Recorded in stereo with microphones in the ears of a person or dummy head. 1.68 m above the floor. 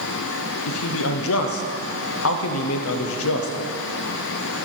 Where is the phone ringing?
No phone ringing in this recording.